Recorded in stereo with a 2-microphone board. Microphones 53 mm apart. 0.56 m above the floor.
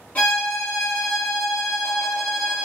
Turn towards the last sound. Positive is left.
turn(degrees=35)  # may be behind; listen again after turning